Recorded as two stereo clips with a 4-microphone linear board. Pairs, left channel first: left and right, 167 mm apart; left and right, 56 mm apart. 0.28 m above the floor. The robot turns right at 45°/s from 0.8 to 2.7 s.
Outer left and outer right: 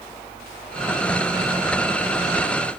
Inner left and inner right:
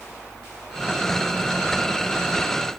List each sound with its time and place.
Only background noise.